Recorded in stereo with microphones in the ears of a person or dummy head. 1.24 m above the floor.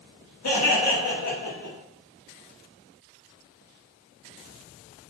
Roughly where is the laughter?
Left.